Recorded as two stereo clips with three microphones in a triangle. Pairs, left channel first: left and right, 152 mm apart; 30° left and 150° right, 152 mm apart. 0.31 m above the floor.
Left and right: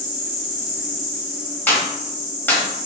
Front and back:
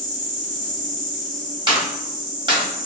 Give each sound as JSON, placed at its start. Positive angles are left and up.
{"t": 0.0, "sound": "an insect", "azimuth_deg": -135, "distance_m": 2.0}
{"t": 1.7, "sound": "a clap", "azimuth_deg": 165, "distance_m": 1.3}